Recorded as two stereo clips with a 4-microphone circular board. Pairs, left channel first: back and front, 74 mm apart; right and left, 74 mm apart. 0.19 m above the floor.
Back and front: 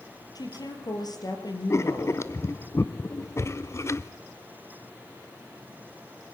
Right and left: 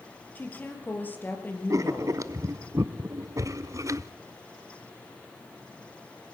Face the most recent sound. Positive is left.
turn(degrees=130)